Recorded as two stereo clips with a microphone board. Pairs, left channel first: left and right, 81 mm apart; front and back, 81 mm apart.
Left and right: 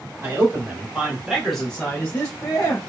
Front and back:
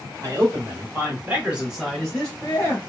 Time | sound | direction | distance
0.2 | a man speaking | 145° right | 1.2 m